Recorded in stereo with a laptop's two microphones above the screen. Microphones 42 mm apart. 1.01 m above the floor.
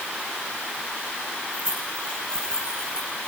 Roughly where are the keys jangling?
Left.